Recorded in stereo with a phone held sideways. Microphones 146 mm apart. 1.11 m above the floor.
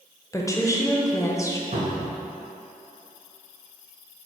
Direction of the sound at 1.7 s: 60° right (ahead or behind).